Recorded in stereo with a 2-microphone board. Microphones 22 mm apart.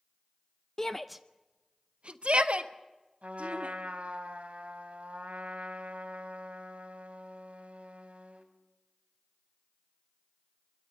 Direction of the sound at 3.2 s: 75° right (ahead or behind).